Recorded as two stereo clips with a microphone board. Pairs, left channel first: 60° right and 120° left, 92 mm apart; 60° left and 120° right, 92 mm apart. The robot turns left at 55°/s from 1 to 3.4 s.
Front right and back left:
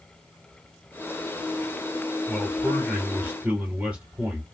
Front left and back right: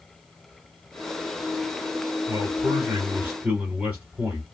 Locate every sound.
2.3 s a man speaking: 115° right, 1.6 m; by 4.4 s 175° right, 1.6 m